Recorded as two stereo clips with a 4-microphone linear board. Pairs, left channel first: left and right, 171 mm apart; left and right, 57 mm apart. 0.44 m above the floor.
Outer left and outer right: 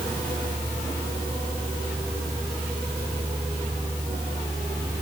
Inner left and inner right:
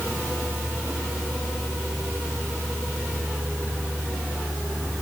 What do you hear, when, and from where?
Only background noise.